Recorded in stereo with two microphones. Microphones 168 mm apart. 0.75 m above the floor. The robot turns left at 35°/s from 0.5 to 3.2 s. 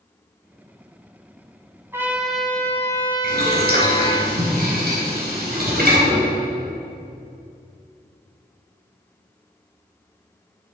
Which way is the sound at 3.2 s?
75° right (ahead or behind).